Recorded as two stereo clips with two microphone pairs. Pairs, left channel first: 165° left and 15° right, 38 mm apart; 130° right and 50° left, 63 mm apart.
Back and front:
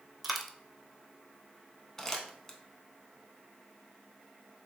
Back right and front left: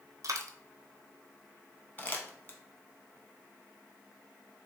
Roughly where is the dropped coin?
Left.